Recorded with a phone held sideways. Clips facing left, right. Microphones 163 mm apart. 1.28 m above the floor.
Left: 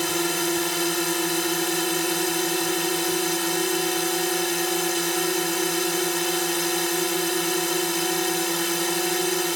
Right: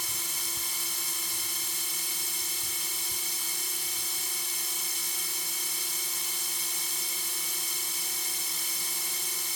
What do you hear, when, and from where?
0.0 s a drone: 75° left (ahead or behind)